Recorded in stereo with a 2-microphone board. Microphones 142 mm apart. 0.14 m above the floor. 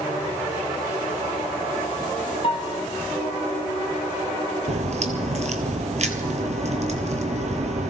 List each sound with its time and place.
2.4 s a piano: 45° left (ahead or behind), 0.5 m
4.7 s a crack: 55° right (ahead or behind), 1.4 m